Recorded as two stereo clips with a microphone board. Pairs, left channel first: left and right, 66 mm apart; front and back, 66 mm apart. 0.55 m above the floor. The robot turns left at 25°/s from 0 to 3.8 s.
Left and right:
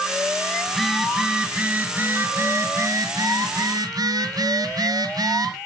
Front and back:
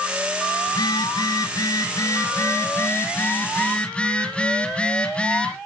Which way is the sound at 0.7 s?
5° left.